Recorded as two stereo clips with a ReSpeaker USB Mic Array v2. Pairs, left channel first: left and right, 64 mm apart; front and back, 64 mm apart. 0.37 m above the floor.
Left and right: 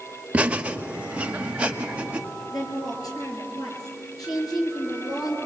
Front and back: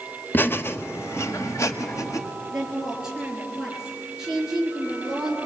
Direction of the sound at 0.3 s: 35° right.